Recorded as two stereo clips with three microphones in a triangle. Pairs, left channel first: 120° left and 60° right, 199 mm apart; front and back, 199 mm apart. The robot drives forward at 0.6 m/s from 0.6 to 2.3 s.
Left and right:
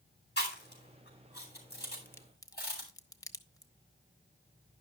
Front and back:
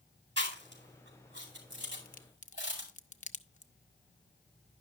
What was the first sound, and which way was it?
Chewing, 150° left.